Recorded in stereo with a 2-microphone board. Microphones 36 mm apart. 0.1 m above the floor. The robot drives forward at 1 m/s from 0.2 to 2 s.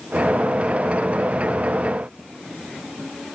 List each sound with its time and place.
Only background noise.